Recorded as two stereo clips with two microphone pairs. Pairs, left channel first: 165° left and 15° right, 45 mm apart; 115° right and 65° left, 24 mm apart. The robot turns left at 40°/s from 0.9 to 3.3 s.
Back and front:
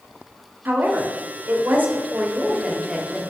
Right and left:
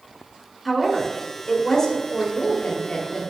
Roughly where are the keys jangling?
I don't hear keys jangling.